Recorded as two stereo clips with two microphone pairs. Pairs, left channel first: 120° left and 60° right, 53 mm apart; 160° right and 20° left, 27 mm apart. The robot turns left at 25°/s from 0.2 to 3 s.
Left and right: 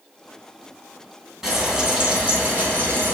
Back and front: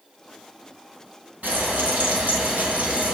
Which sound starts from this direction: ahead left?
Frying, at 1.4 s.